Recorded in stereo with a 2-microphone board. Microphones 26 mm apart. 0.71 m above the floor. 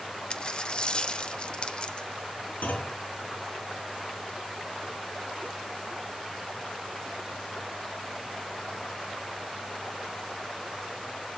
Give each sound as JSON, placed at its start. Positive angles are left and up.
{"t": 0.3, "sound": "a dropped coin", "side_deg": 40, "distance_m": 0.6}
{"t": 2.6, "sound": "a clunk", "side_deg": 85, "distance_m": 4.0}